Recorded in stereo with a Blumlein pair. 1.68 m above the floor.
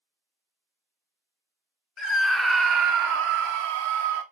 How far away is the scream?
About 0.5 m.